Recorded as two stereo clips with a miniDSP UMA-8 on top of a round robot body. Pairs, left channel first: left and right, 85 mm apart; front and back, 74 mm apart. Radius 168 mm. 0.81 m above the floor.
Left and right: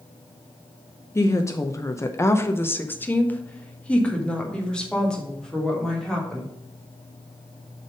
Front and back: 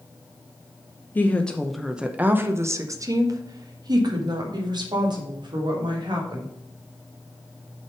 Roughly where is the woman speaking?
Ahead left.